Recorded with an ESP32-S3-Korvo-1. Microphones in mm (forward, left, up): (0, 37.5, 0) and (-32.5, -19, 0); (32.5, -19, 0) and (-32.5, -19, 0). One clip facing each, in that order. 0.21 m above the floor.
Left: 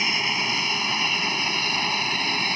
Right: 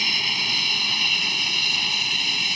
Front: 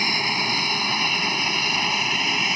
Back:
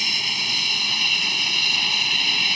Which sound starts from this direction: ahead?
An aircraft, at 0.0 s.